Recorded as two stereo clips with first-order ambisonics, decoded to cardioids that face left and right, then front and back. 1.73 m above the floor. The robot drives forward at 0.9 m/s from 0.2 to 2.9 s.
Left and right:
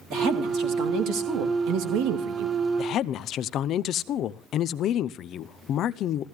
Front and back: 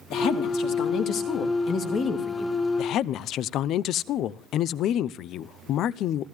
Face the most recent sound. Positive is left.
turn(degrees=45)